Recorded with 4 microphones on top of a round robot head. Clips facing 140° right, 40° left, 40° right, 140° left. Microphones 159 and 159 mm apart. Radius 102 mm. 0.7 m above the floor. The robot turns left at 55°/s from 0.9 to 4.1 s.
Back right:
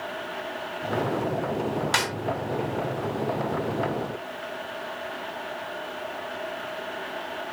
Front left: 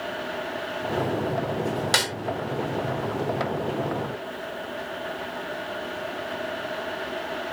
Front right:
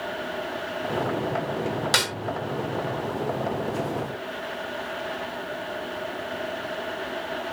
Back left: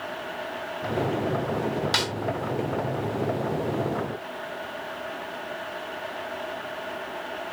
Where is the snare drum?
10° right; by 2.1 s 20° right.